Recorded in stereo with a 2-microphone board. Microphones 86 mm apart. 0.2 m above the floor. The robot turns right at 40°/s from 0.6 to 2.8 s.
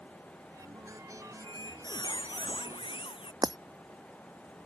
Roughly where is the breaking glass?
Right.